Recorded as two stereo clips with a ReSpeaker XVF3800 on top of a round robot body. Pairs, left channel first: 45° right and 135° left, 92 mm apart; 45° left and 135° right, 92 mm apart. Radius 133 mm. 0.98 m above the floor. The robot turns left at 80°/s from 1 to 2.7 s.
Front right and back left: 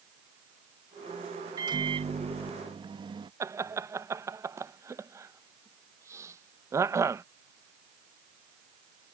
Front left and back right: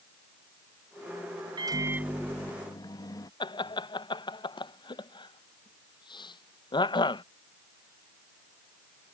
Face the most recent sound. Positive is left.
turn(degrees=75)